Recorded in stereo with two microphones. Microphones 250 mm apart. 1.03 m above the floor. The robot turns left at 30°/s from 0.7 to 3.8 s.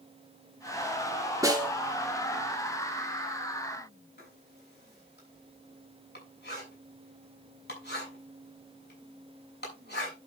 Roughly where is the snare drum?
Centre.